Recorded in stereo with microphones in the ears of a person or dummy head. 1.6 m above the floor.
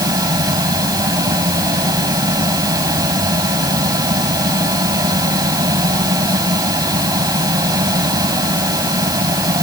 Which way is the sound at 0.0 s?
25° right (ahead or behind).